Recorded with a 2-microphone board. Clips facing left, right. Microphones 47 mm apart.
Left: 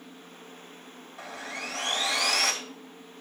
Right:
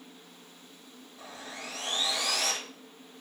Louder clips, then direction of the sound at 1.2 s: Left 6 dB; 85° left.